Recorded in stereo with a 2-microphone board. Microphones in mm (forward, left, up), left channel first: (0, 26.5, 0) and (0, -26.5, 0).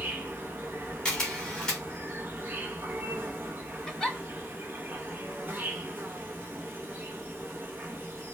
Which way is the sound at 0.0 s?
35° right (ahead or behind).